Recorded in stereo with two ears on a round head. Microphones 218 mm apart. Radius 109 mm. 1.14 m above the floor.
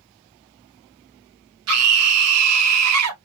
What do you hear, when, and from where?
1.7 s a scream: 65° right (ahead or behind), 1.3 m